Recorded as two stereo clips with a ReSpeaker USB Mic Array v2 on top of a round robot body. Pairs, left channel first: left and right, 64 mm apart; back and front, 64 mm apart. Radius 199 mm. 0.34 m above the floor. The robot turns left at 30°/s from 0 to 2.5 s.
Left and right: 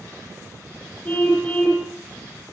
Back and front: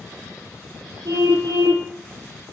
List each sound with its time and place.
1.1 s a car horn: 25° left, 10 m; by 1.9 s straight ahead, 10 m